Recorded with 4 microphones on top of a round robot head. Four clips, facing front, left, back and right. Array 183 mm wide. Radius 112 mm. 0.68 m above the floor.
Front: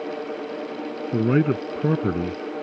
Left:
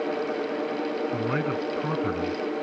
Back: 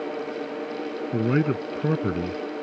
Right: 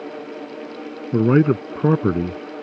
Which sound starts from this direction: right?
A man speaking, at 1.1 s.